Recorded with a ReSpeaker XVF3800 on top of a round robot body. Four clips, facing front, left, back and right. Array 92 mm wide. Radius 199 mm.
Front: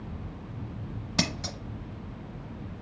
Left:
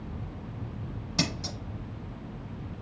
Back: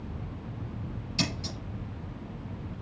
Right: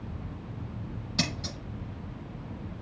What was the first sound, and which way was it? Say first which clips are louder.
Scissors: left 1 dB, front 2 dB; 10° left.